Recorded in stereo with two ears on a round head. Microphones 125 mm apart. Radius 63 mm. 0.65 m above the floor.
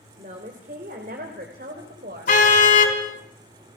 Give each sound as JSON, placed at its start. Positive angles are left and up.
{"t": 0.2, "sound": "a woman speaking", "side_deg": -55, "distance_m": 2.5}
{"t": 2.3, "sound": "a car horn", "side_deg": 60, "distance_m": 3.5}